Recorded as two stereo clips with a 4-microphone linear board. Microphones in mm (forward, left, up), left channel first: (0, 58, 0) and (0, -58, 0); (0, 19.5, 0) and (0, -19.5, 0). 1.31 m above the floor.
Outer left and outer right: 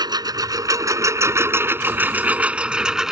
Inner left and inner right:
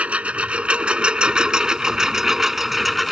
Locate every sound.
0.0 s a lawn mower: 35° right (ahead or behind); by 3.1 s 5° right (ahead or behind)